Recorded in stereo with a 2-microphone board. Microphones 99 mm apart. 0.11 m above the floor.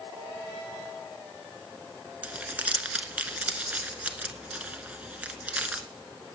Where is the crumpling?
15° right (ahead or behind), 0.7 m.